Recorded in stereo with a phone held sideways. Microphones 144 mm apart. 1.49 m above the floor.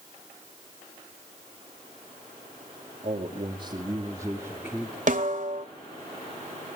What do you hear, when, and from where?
3.0 s a man speaking: 55° right (ahead or behind), 2.5 m; by 5.0 s 5° left (ahead or behind), 2.5 m
5.1 s a snare drum: 65° right (ahead or behind), 2.5 m